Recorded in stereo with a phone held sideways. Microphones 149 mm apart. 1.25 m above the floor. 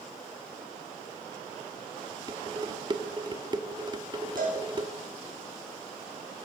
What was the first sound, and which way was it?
Dishes clattering, 30° right (ahead or behind).